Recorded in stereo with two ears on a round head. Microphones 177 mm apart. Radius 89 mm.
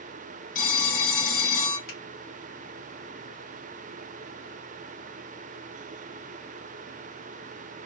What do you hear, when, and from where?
0.6 s a phone ringing: 45° left (ahead or behind), 0.8 m
1.9 s a finger snap: 75° left (ahead or behind), 1.5 m